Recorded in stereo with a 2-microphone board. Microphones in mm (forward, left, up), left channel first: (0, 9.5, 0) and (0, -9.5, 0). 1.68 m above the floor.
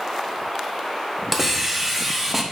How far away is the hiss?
About 0.9 m.